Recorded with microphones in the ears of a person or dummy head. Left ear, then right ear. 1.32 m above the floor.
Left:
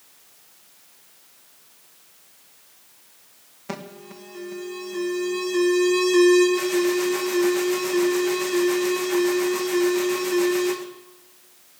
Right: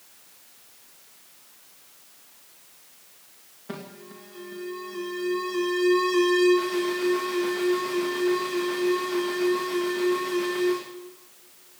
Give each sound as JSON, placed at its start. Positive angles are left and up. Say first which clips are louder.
{"t": 3.7, "sound": "an alarm", "louder": "left 4 dB", "side_deg": 75, "distance_m": 1.8}